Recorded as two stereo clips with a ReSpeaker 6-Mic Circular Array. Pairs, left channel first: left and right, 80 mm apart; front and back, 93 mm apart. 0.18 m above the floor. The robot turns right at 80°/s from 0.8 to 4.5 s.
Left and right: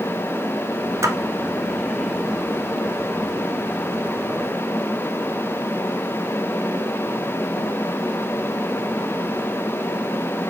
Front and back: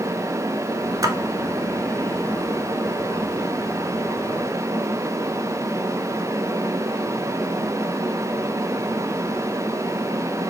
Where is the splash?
135° right, 0.6 m; by 1.1 s 125° right, 0.6 m.